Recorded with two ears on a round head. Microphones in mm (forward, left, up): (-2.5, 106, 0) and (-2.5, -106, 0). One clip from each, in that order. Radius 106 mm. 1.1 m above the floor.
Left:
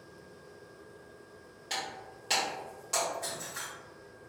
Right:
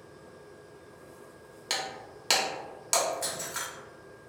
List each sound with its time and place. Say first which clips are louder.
1.7 s breaking glass: right 4 dB; 55° right (ahead or behind), 1.4 m